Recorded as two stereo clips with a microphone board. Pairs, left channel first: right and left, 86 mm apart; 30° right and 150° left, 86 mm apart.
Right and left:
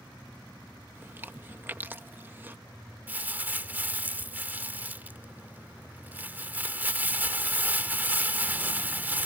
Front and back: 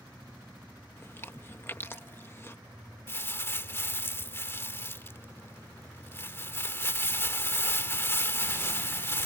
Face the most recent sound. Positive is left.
turn(degrees=25)